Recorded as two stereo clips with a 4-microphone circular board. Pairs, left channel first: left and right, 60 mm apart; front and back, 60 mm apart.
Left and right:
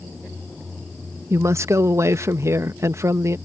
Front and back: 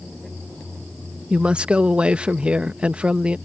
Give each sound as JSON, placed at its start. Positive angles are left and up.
{"t": 1.3, "sound": "a woman speaking", "azimuth_deg": -110}